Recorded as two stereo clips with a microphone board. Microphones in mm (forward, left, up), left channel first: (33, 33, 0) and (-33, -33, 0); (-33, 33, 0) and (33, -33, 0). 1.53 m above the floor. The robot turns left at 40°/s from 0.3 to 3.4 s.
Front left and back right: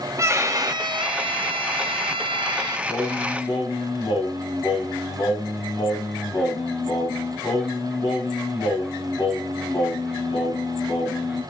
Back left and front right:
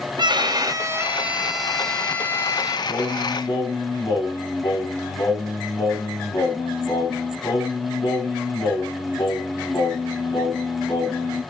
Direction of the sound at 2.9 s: 95° left.